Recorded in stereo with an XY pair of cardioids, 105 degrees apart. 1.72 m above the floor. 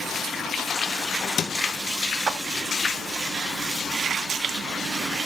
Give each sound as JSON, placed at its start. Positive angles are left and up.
{"t": 2.3, "sound": "a clap", "azimuth_deg": -50, "distance_m": 2.5}